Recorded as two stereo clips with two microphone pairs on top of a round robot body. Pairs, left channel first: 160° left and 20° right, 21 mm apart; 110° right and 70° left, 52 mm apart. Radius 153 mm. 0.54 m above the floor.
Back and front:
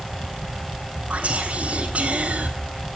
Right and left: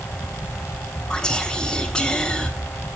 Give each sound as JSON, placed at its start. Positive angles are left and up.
{"t": 1.1, "sound": "whispering", "azimuth_deg": -35, "distance_m": 1.8}